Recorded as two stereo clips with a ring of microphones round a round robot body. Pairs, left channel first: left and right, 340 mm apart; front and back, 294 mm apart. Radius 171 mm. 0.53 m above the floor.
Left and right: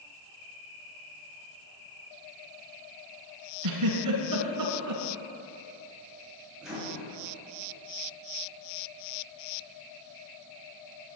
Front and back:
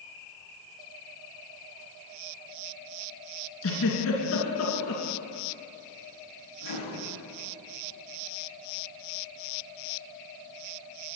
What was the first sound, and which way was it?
A giggle, 50° right.